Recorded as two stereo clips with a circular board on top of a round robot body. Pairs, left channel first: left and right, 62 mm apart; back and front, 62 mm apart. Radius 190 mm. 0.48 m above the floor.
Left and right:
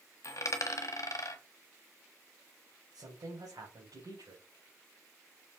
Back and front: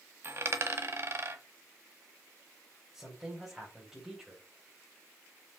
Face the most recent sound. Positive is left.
turn(degrees=-80)